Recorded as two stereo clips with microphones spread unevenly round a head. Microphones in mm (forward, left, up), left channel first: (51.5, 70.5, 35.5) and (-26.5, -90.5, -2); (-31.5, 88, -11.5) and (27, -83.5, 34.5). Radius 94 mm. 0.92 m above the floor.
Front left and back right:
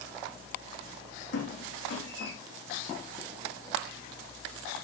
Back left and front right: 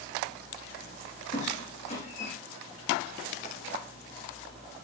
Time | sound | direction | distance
1.3 | a squeak | 50° left | 3.5 m